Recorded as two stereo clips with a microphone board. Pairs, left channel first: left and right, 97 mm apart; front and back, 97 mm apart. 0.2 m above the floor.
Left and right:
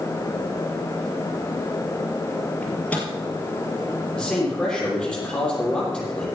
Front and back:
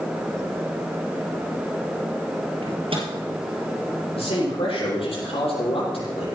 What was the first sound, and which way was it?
A microwave, 165° left.